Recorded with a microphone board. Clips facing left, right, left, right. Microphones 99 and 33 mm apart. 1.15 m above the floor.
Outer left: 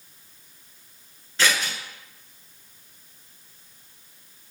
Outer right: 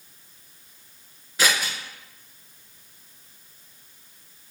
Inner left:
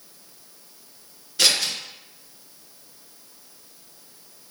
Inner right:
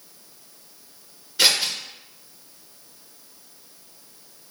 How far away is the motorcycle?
No motorcycle in this recording.